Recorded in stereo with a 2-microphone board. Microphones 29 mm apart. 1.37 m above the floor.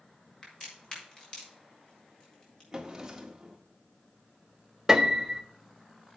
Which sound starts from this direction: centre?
A drawer, at 2.7 s.